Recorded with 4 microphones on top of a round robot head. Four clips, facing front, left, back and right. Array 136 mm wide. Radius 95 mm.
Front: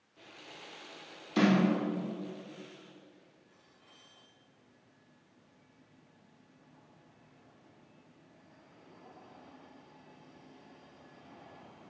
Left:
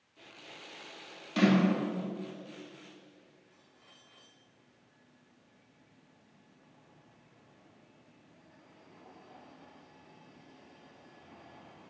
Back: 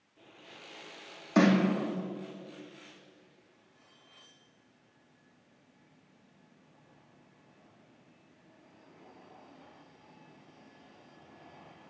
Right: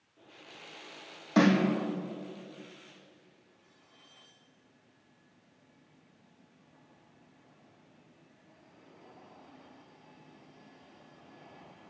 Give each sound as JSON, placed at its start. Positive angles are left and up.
{"t": 1.4, "sound": "a snare drum", "azimuth_deg": -145, "distance_m": 2.5}